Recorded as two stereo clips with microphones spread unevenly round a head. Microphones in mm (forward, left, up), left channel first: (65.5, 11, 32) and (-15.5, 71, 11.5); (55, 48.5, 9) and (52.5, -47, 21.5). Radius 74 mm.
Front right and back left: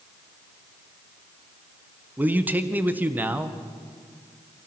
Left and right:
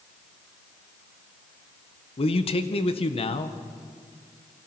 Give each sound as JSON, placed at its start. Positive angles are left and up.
{"t": 2.2, "sound": "a man speaking", "azimuth_deg": 70, "distance_m": 1.6}